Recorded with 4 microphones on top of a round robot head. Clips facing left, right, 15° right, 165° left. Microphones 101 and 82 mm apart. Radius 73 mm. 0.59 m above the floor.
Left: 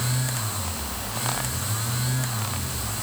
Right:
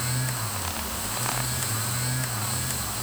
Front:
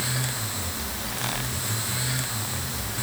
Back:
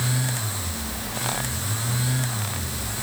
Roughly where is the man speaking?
I don't hear a man speaking.